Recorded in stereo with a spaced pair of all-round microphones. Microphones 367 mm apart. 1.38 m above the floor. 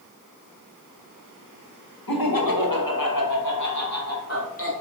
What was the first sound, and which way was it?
Laughter, 85° left.